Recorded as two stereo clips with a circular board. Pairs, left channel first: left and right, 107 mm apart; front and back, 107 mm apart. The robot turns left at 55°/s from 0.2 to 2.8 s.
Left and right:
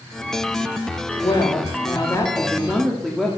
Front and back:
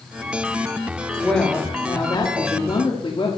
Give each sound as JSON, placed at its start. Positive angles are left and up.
{"t": 1.2, "sound": "a woman speaking", "azimuth_deg": 90, "distance_m": 1.4}